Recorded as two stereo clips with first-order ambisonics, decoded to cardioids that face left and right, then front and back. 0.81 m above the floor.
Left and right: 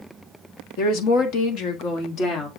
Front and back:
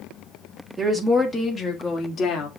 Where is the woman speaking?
95° left, 1.8 m; by 2.5 s 35° left, 2.5 m.